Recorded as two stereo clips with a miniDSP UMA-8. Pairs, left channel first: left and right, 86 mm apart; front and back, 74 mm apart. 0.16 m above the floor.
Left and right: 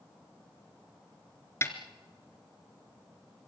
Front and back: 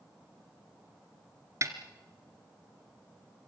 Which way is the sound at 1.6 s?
140° left.